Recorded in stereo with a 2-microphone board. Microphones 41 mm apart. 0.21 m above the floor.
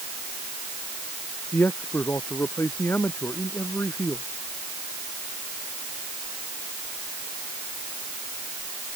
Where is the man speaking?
60° left (ahead or behind); by 4.2 s 65° left (ahead or behind).